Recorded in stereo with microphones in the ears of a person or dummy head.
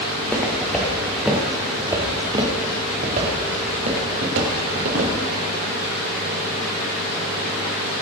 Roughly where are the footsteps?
Centre.